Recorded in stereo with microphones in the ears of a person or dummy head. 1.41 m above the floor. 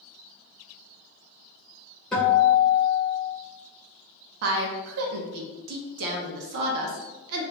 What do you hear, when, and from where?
2.1 s a guitar: 10° left (ahead or behind), 1.0 m
4.4 s a woman speaking: 70° right (ahead or behind), 0.6 m